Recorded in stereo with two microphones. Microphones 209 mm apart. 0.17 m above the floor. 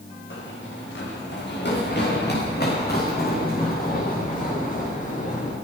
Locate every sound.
0.3 s running footsteps: 65° left (ahead or behind), 6 m; by 5.5 s 35° left (ahead or behind), 8 m